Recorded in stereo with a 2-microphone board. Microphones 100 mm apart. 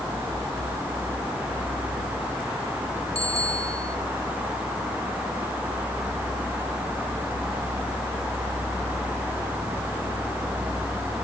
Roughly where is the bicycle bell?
Left.